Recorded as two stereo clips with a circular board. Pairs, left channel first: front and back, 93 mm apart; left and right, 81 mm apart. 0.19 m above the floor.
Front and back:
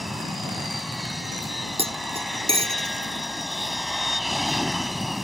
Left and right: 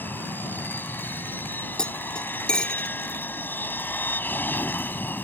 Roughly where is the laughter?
I don't hear laughter.